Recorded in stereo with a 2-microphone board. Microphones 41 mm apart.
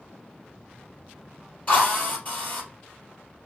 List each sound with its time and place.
1.7 s a drill: 40° left (ahead or behind), 3 m